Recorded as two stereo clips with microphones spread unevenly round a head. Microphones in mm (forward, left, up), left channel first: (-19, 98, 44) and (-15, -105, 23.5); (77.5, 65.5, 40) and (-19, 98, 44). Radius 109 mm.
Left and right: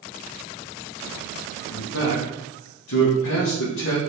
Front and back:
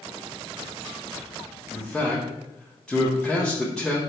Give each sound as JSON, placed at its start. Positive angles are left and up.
{"t": 1.7, "sound": "a man speaking", "azimuth_deg": 65, "distance_m": 0.9}